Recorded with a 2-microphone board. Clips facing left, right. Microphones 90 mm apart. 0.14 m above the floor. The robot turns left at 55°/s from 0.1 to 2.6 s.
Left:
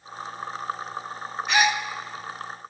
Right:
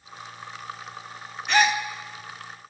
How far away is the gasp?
About 0.7 m.